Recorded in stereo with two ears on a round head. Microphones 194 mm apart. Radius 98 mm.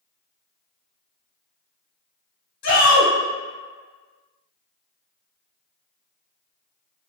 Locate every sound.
2.6 s a shout: 55° left (ahead or behind), 1.4 m